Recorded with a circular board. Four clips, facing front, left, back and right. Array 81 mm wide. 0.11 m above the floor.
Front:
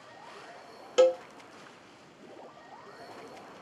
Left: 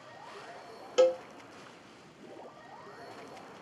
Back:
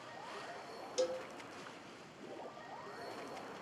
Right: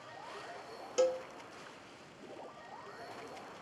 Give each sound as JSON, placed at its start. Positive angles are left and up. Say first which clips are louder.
{"t": 1.0, "sound": "a cowbell", "louder": "left 6 dB, front 14 dB", "azimuth_deg": 20, "distance_m": 0.6}